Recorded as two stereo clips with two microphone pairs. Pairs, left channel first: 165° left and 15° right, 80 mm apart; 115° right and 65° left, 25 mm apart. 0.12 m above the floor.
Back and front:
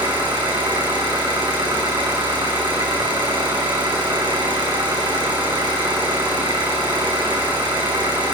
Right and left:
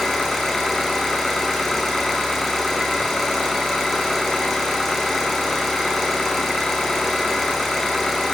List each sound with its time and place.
0.0 s an engine running: 30° right, 2.5 m